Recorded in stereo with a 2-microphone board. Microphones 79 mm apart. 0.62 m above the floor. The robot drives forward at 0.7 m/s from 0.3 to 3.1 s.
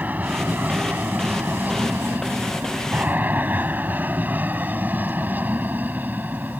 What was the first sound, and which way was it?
An aircraft, 20° right (ahead or behind).